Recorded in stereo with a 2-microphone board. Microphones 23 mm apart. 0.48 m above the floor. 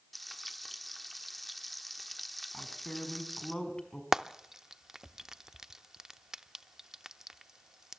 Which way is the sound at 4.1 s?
20° right (ahead or behind).